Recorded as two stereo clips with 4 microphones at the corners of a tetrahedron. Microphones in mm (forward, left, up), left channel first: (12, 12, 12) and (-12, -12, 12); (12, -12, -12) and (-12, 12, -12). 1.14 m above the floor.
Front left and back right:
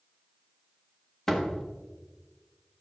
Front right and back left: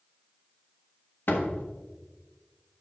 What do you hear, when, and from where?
1.3 s a door slam: 35° right, 1.2 m